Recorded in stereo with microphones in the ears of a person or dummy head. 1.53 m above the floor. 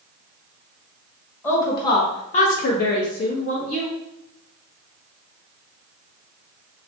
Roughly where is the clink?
No clink in this recording.